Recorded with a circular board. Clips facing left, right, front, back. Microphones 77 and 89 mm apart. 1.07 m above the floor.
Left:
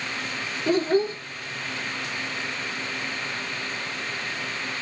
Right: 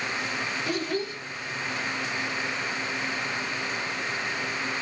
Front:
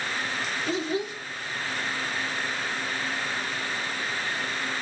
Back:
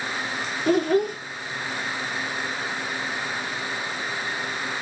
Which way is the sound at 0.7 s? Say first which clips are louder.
Left 11 dB, back 10 dB; 145° left.